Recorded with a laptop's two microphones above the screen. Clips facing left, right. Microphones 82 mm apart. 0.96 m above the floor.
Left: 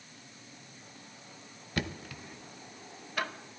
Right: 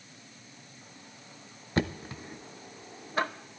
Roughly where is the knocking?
Right.